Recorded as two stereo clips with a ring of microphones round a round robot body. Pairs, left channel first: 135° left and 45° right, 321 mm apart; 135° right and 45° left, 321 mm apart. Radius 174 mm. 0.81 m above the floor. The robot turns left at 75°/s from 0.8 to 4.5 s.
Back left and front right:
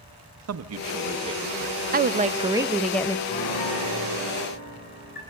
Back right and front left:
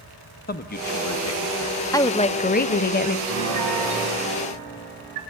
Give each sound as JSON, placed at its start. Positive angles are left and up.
{"t": 0.5, "sound": "a man speaking", "azimuth_deg": -80, "distance_m": 0.8}
{"t": 1.9, "sound": "a woman speaking", "azimuth_deg": -65, "distance_m": 0.6}
{"t": 3.3, "sound": "a piano", "azimuth_deg": 170, "distance_m": 6.0}